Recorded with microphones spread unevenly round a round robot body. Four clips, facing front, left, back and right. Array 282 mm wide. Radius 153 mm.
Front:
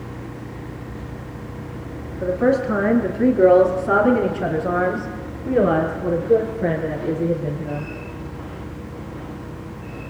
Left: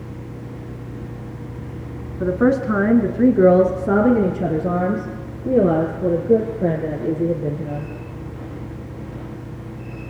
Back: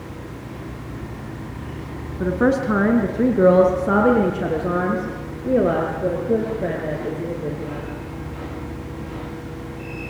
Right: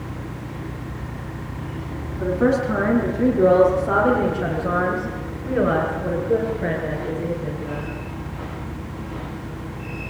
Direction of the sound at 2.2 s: 130° left.